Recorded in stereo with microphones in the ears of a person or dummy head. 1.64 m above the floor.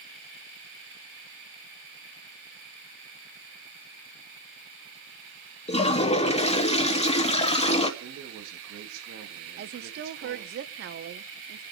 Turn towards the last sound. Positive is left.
turn(degrees=-55)  # may be behind; listen again after turning